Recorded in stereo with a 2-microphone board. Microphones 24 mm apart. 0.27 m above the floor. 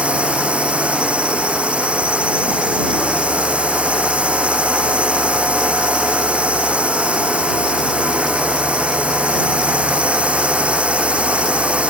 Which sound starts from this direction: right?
A drone, at 0.0 s.